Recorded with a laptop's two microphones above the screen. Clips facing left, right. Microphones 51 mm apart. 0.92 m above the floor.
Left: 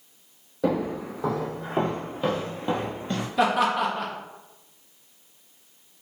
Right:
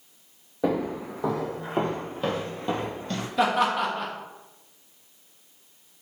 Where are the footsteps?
15° right (ahead or behind), 2.0 m; by 3.3 s 20° left (ahead or behind), 1.0 m.